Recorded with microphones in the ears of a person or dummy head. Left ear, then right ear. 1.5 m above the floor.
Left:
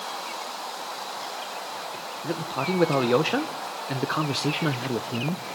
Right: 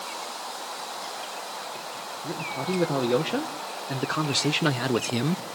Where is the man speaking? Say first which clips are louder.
Left 3 dB; 35° left (ahead or behind), 1.6 m; by 5.4 s 65° right (ahead or behind), 0.7 m.